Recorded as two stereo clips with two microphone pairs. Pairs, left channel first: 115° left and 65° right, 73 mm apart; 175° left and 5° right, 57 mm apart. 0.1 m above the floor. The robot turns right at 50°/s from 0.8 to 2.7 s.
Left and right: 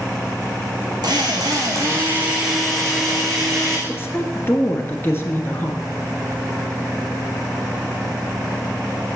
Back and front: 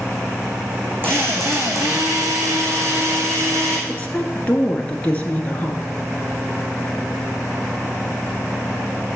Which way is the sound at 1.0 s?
55° right.